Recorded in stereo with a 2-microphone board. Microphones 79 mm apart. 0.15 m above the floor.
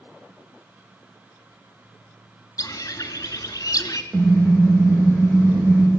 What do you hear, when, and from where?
2.6 s a bird: 45° left (ahead or behind), 0.6 m
4.1 s a car horn: 35° right (ahead or behind), 3 m